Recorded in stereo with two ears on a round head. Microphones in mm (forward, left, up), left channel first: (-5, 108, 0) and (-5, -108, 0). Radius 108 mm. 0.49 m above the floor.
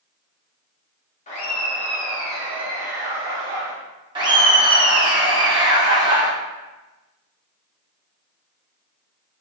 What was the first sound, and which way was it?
Laughter, 30° left (ahead or behind).